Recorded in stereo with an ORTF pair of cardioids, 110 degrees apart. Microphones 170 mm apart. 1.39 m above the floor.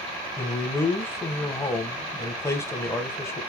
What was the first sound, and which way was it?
A man speaking, 15° left.